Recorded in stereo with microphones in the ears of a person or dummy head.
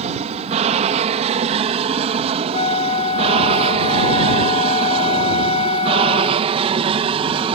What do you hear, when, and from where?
0.0 s an aircraft: 30° right (ahead or behind); by 7.5 s 25° right (ahead or behind)
2.5 s a flute: 35° left (ahead or behind)